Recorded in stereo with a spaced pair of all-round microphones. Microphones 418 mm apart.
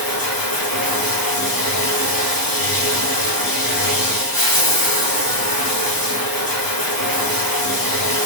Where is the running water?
55° left (ahead or behind), 1.0 m.